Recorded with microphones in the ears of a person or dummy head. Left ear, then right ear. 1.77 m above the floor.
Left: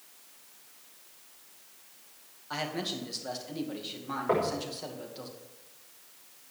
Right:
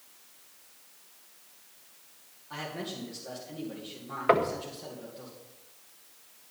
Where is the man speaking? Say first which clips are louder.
Left 4 dB; 50° left (ahead or behind), 2.5 m.